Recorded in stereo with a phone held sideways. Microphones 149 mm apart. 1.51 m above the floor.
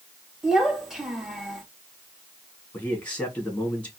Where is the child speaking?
Centre (ahead or behind), 1.7 m.